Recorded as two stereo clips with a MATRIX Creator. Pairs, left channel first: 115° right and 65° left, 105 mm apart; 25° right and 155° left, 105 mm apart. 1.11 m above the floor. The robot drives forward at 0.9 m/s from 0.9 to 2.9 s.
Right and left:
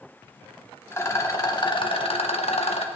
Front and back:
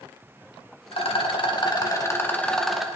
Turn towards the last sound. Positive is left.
turn(degrees=-120)